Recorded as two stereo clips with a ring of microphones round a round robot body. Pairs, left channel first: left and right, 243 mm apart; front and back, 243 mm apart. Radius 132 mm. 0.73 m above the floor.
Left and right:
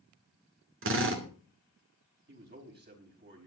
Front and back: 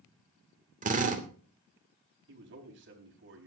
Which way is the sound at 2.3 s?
140° right.